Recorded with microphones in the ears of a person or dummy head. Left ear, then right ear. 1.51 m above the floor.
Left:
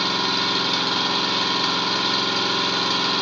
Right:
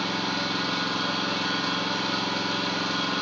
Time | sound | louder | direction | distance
0.0 | an engine running | left 6 dB | 30° left (ahead or behind) | 1.8 m